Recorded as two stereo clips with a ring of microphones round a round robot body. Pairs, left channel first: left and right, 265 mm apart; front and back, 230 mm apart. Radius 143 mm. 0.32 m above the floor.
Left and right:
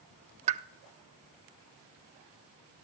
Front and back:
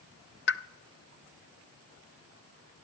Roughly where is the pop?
Ahead right.